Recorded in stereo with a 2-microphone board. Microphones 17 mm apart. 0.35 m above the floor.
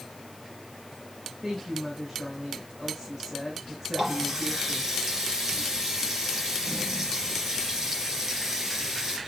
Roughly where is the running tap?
Right.